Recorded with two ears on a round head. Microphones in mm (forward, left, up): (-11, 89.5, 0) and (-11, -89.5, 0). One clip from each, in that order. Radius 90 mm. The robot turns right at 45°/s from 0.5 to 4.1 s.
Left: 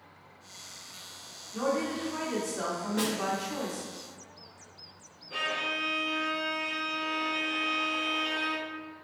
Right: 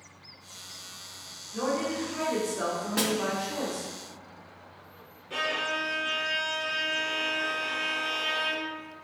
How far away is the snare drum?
About 0.6 m.